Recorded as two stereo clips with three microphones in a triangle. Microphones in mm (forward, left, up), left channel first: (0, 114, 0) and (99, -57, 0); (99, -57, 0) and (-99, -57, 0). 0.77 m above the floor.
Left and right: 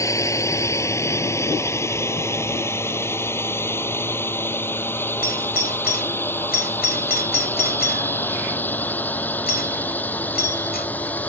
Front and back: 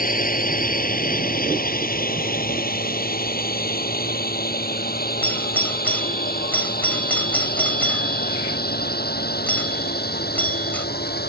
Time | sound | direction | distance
0.0 | a drone | 45° left | ?
5.2 | a doorbell | 80° left | ?